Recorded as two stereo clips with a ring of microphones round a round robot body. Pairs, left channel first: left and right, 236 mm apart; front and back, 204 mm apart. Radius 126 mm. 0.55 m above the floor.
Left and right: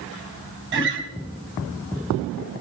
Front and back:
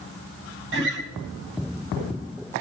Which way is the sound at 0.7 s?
135° right.